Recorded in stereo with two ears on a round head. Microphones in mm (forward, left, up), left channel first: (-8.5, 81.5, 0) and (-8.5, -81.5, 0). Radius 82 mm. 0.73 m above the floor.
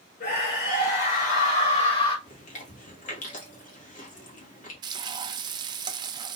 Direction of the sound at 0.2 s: 65° left (ahead or behind).